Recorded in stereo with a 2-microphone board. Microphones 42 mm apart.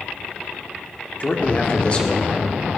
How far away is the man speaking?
About 1.5 m.